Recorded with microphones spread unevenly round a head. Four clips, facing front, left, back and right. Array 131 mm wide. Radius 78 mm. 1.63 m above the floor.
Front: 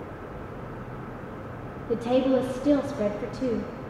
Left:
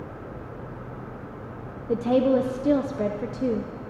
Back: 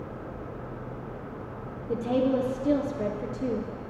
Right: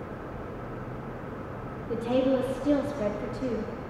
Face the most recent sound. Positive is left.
turn(degrees=85)